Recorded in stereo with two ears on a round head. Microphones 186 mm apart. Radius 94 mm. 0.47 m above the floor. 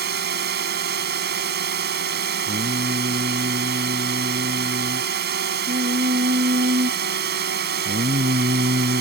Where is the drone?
55° right (ahead or behind).